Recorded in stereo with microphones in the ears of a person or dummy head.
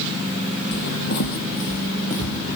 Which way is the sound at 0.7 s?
55° left (ahead or behind).